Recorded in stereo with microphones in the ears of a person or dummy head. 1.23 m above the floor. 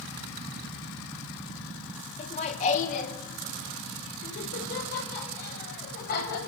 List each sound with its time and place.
2.2 s laughter: 35° left (ahead or behind), 2 m; by 6.4 s 60° left (ahead or behind), 7 m